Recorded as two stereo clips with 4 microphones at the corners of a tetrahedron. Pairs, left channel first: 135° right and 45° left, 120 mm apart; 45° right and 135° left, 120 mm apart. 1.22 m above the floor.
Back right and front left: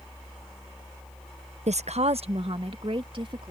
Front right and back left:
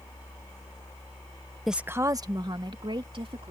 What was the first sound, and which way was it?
A woman speaking, 45° left.